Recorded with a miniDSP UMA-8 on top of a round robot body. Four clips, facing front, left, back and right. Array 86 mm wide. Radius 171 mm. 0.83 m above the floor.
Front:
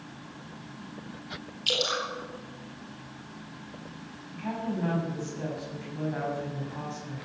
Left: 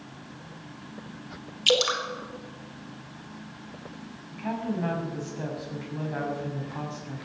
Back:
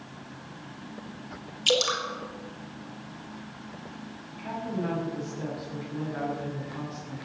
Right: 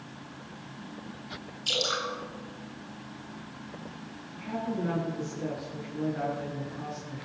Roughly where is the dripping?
Left.